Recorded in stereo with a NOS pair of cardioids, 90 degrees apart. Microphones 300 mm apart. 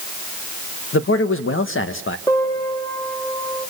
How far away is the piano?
About 7.5 m.